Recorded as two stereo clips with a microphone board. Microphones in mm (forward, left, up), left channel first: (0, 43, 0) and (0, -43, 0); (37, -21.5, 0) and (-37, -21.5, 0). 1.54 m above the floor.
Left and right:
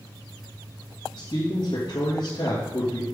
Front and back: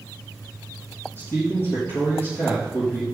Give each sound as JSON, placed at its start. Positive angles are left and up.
{"t": 1.2, "sound": "a man speaking", "azimuth_deg": 60, "distance_m": 3.0}